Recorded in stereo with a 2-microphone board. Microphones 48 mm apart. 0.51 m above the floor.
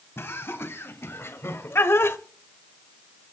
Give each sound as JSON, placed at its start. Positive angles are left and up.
{"t": 0.2, "sound": "laughter", "side_deg": 55, "distance_m": 2.5}